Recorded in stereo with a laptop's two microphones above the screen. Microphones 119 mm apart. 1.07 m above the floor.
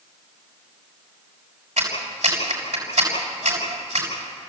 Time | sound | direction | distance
1.8 | a clap | 75° right (ahead or behind) | 6 m